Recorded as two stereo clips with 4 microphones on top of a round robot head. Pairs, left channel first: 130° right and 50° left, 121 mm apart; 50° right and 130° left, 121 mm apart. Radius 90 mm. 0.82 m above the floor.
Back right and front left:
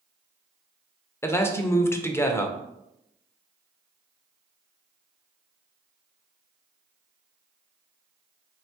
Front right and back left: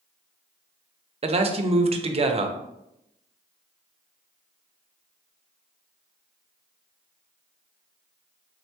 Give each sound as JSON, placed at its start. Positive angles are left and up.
{"t": 1.2, "sound": "a man speaking", "azimuth_deg": 160, "distance_m": 0.6}